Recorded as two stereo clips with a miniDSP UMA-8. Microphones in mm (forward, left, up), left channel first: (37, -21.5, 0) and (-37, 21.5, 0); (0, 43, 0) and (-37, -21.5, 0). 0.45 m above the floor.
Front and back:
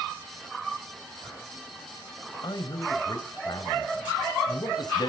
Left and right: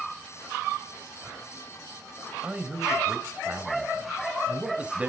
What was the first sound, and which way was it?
A man speaking, 50° right.